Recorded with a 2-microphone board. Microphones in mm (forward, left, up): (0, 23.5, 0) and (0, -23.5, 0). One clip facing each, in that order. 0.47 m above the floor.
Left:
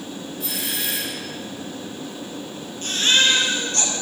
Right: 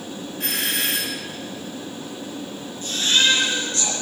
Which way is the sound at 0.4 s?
65° right (ahead or behind).